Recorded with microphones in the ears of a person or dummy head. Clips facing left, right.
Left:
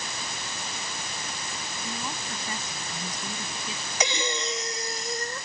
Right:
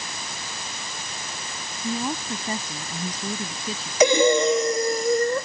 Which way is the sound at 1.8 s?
35° right (ahead or behind).